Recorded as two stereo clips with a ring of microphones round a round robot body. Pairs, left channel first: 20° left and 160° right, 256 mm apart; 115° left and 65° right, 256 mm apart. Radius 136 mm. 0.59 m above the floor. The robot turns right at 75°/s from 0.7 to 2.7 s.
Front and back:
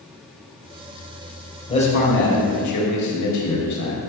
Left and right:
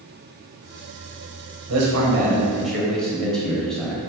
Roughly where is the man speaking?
Ahead right.